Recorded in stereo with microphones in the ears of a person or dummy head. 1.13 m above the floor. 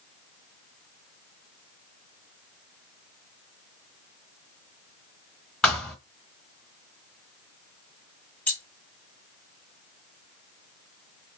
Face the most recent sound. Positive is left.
turn(degrees=10)  # may be behind; listen again after turning